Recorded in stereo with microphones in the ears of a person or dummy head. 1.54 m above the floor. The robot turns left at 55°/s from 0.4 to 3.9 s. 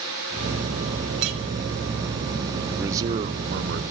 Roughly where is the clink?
Right.